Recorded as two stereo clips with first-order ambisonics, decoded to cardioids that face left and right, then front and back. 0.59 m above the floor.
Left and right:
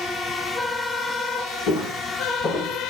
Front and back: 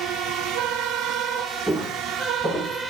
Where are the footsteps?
90° left, 0.9 m; by 2.9 s 40° left, 0.5 m.